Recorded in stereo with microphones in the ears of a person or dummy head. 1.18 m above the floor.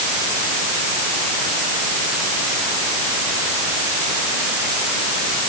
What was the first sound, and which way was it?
Only background noise.